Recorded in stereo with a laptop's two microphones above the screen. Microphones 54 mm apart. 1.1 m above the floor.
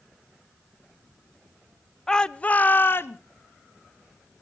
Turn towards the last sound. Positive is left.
turn(degrees=50)  # may be behind; listen again after turning